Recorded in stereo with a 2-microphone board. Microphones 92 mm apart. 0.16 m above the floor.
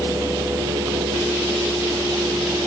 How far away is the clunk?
I don't hear a clunk.